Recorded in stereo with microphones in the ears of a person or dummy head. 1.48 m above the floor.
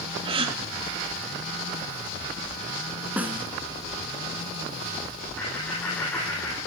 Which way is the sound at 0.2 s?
30° right (ahead or behind).